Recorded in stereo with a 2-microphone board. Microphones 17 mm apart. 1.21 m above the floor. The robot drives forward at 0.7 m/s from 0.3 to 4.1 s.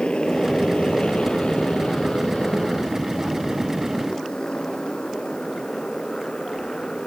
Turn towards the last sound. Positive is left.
turn(degrees=55)  # may be behind; listen again after turning